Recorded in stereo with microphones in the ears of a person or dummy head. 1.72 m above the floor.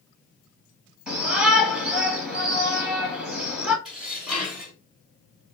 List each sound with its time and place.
1.1 s a shout: 5° right (ahead or behind), 2.5 m
3.9 s dishes clattering: centre (ahead or behind), 2 m